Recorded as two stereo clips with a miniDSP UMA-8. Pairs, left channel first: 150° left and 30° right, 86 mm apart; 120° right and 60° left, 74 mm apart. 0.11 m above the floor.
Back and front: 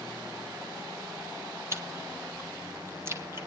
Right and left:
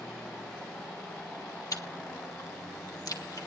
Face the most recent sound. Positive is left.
turn(degrees=-85)